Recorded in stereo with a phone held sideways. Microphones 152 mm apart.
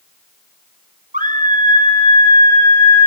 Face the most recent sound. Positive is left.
turn(degrees=-85)